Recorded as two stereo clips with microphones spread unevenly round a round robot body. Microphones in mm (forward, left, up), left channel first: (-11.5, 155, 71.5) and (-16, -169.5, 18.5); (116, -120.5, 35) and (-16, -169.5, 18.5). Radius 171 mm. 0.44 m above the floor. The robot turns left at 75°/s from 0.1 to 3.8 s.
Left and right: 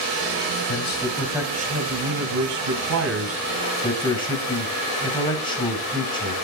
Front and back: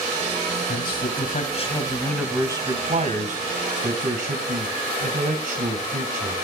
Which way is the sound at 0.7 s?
40° left.